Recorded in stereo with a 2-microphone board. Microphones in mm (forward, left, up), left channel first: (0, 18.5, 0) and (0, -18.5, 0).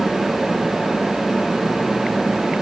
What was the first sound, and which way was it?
Only background noise.